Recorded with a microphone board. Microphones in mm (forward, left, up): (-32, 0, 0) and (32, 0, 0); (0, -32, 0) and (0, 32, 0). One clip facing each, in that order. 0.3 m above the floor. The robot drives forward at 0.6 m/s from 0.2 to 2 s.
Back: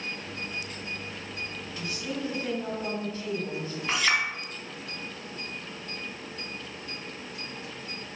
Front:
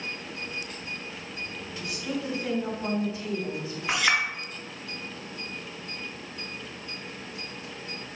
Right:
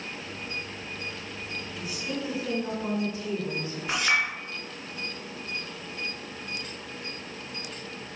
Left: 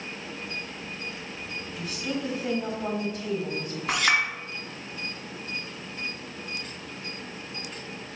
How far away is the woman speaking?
About 2.5 m.